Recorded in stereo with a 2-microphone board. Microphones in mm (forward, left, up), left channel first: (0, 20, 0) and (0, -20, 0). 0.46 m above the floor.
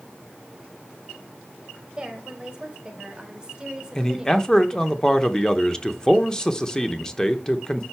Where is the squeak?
I don't hear a squeak.